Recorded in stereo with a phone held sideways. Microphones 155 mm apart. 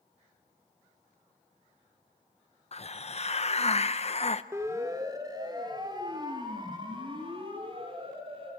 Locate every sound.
2.7 s a hiss: 45° left (ahead or behind), 0.8 m
4.5 s a siren: 20° right (ahead or behind), 2.5 m; by 8.5 s 40° right (ahead or behind), 5.5 m